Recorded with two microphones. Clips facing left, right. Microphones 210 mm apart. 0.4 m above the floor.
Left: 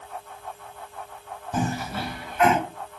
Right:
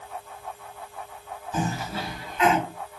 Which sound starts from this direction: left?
A cough, at 1.5 s.